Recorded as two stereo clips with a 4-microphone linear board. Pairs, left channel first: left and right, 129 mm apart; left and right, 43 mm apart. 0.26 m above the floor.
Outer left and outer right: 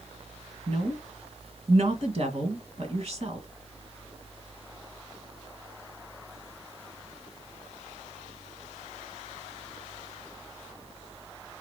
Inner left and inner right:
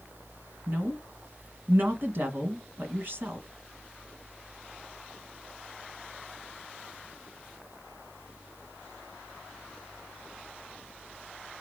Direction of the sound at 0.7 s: 55° right (ahead or behind).